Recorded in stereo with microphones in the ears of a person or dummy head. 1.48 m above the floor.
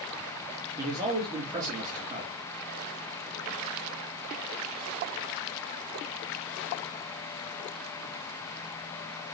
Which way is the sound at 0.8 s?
25° right (ahead or behind).